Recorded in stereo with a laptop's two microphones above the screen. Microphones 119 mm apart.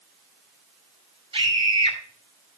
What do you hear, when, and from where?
1.3 s a scream: 45° right (ahead or behind), 5 m